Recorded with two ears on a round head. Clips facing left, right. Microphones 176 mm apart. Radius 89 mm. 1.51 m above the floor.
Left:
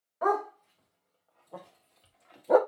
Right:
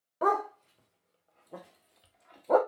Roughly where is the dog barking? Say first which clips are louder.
Left 1 dB; right.